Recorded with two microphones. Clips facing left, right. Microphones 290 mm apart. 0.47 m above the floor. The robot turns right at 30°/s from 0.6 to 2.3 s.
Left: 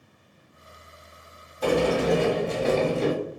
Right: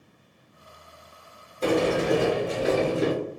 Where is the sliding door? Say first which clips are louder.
Even; 25° right (ahead or behind), 1.0 m; by 3.1 s 5° right (ahead or behind), 1.0 m.